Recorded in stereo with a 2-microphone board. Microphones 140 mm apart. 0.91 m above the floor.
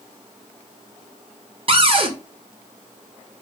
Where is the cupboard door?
40° right (ahead or behind), 0.6 m.